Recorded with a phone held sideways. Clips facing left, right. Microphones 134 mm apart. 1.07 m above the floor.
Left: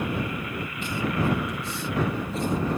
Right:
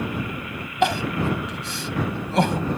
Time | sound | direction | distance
0.8 | crying | 75° right (ahead or behind) | ?